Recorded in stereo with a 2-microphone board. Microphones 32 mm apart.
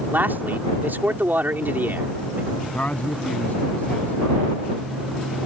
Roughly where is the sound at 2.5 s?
Left.